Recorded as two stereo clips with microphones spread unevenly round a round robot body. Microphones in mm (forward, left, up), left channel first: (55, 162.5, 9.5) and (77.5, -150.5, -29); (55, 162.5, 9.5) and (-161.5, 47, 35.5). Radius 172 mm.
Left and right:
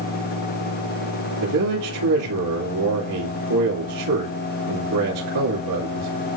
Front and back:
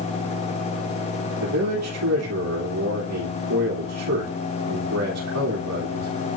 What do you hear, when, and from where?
1.4 s a man speaking: 115° right, 2.5 m